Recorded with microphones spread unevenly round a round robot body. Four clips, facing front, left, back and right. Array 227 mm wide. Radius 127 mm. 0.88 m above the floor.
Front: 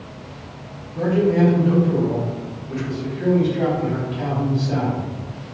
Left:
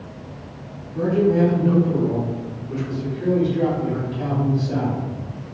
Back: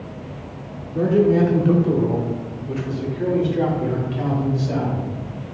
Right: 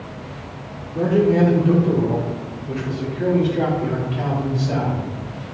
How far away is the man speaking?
About 1.8 m.